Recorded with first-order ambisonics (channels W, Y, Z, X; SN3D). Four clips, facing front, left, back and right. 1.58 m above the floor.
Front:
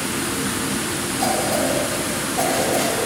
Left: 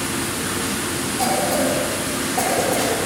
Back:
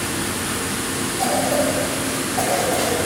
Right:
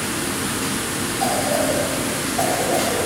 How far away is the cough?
About 6 m.